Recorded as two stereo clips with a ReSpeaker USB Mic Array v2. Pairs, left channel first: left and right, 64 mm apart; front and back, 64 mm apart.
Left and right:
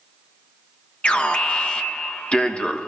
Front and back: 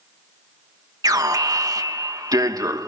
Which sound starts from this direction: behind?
An alarm, at 1.0 s.